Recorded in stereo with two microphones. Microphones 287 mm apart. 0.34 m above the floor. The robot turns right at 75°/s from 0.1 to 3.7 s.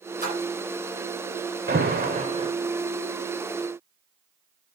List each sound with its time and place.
0.2 s a splash: 30° right (ahead or behind), 6 m; by 0.4 s 45° right (ahead or behind), 6 m
1.7 s an alarm: 95° right, 0.9 m; by 2.5 s 30° right, 0.9 m